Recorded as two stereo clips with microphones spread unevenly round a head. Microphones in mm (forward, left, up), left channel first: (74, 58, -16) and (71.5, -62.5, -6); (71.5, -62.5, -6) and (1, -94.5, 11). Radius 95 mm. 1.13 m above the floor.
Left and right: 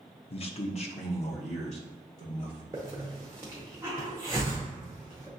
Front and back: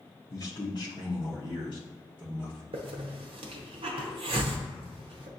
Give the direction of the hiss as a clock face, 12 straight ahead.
6 o'clock.